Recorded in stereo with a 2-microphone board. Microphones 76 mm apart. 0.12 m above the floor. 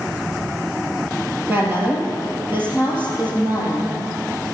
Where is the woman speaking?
25° right (ahead or behind), 3.5 m.